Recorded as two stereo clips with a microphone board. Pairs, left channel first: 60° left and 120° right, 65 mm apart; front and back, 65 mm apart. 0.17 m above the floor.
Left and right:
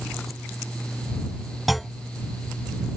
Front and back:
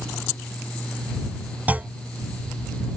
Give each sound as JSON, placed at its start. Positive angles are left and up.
{"t": 1.7, "sound": "a clunk", "azimuth_deg": 150}